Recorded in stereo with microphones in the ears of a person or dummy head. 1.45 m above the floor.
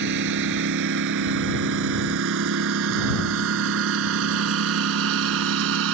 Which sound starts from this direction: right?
A lawn mower, at 0.0 s.